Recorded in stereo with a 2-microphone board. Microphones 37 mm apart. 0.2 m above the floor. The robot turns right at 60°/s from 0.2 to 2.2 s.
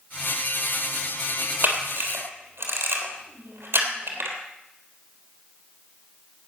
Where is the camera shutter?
55° right (ahead or behind), 3 m; by 4.4 s 80° right, 3 m.